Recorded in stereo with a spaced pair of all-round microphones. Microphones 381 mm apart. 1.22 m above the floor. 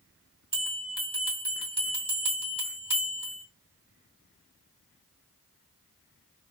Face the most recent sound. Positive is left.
turn(degrees=15)  # may be behind; listen again after turning